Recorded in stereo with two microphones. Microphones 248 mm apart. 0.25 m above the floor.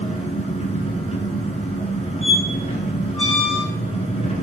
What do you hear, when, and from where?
0.0 s an engine running: 25° left (ahead or behind), 1.8 m
2.2 s a squeak: 20° left (ahead or behind), 3 m